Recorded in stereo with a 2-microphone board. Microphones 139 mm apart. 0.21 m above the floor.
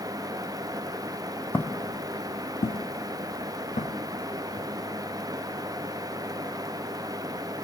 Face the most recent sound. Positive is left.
turn(degrees=70)  # may be behind; listen again after turning